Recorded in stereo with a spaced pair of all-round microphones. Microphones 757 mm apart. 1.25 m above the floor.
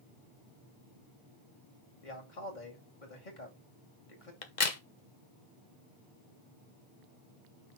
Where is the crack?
65° left (ahead or behind), 1.2 m.